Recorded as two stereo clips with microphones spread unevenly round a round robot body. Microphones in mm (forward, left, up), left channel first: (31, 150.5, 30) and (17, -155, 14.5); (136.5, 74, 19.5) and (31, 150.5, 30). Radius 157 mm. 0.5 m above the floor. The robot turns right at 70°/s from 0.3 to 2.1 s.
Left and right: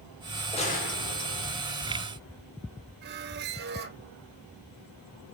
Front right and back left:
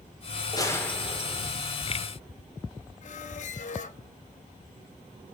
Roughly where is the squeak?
Ahead right.